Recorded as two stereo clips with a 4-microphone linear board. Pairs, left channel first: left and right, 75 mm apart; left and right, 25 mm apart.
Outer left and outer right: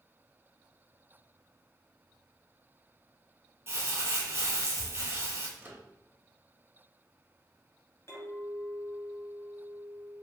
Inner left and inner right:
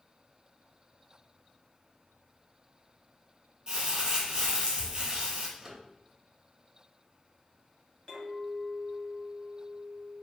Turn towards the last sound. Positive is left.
turn(degrees=35)  # may be behind; listen again after turning